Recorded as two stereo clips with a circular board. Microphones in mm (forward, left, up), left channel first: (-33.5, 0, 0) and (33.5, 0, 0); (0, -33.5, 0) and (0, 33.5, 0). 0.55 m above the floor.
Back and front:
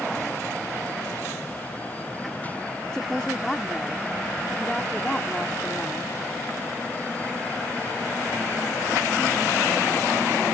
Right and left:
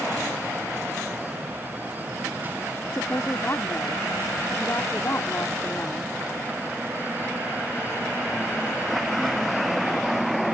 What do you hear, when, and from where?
2.9 s a woman speaking: 105° right